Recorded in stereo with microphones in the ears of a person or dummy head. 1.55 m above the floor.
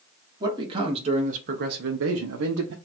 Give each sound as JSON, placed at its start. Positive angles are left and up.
{"t": 0.4, "sound": "a man speaking", "side_deg": -25, "distance_m": 1.3}